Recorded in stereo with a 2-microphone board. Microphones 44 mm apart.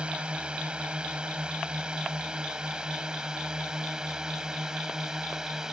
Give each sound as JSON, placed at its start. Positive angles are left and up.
{"t": 0.0, "sound": "a drone", "side_deg": -25}